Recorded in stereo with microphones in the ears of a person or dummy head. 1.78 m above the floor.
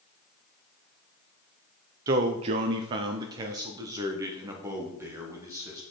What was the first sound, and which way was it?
A man speaking, 25° right (ahead or behind).